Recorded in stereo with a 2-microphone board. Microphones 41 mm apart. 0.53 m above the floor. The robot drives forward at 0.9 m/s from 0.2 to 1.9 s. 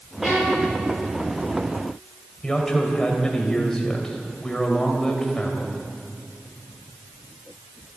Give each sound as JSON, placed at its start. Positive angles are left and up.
{"t": 0.2, "sound": "a violin", "side_deg": -10, "distance_m": 7.5}
{"t": 2.4, "sound": "a man speaking", "side_deg": 15, "distance_m": 3.0}